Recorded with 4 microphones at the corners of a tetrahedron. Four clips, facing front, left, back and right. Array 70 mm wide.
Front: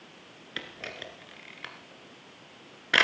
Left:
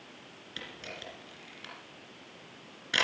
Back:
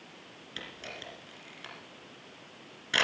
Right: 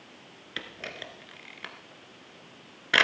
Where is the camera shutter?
45° right, 1.9 m.